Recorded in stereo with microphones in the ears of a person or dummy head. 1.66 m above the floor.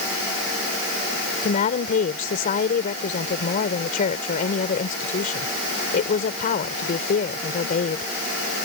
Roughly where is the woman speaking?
Left.